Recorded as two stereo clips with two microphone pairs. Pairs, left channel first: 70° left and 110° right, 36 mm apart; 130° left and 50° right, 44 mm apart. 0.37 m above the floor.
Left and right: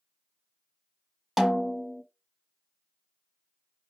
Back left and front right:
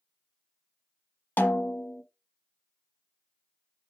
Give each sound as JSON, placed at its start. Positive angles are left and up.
{"t": 1.4, "sound": "a snare drum", "azimuth_deg": 170, "distance_m": 1.0}